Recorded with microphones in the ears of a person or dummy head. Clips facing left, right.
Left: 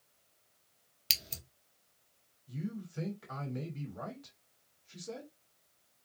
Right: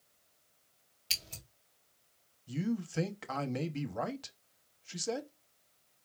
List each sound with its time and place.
1.1 s scissors: 30° left (ahead or behind), 1.3 m
2.5 s a man speaking: 80° right, 1.1 m